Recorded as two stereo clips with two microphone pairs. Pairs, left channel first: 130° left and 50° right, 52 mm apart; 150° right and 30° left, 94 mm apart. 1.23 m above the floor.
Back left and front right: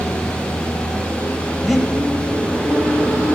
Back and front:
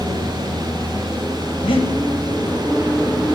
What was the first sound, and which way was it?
Breathing, 135° right.